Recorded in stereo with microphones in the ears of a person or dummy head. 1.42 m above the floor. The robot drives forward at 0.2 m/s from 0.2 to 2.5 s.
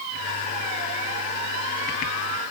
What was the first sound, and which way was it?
Only background noise.